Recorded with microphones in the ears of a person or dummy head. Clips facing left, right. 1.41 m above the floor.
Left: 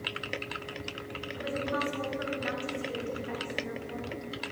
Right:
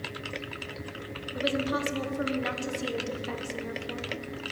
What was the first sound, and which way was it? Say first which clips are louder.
A woman speaking: right 4 dB; 55° right (ahead or behind).